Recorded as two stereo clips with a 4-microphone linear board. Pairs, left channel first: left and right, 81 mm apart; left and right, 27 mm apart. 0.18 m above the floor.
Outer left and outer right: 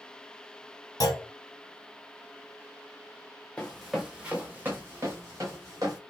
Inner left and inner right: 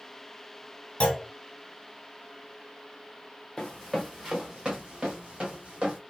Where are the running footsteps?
15° left (ahead or behind), 0.7 m; by 6.0 s 45° right (ahead or behind), 1.7 m.